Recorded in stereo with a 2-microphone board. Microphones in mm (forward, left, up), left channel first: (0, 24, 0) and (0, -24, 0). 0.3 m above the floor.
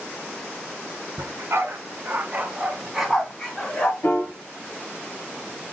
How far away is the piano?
About 1.0 m.